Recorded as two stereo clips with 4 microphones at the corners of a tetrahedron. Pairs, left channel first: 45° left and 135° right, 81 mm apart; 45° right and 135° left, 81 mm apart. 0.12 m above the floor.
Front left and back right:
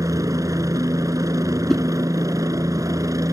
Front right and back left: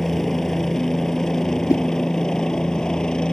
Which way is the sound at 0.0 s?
130° right.